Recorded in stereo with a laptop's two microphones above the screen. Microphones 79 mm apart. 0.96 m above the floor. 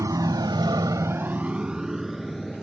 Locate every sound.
0.0 s a motorcycle: 45° right (ahead or behind); by 2.6 s centre (ahead or behind)